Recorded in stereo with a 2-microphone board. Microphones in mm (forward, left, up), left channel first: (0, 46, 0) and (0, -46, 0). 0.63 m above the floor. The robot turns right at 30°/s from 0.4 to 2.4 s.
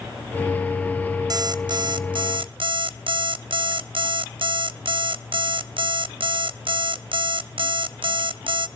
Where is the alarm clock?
130° right, 0.5 m; by 8.7 s 95° right, 0.5 m.